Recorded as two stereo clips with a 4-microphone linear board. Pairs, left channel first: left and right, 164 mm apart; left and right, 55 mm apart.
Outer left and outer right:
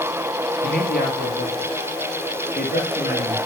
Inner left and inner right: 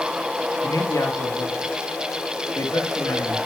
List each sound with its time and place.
0.6 s a man speaking: 65° left (ahead or behind), 4 m